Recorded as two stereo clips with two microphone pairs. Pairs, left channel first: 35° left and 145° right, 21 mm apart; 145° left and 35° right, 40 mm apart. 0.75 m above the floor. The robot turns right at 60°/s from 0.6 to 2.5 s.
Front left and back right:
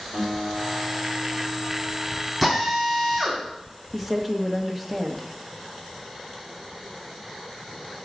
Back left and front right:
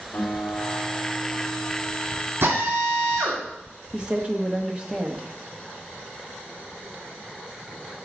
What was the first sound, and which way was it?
A guitar, 160° right.